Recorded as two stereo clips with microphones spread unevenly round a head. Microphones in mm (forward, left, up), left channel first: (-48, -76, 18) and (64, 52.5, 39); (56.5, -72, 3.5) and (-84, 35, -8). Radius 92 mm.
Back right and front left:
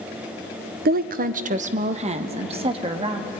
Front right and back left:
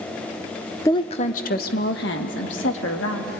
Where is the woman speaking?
35° left, 0.8 m; by 3.3 s 10° right, 3 m.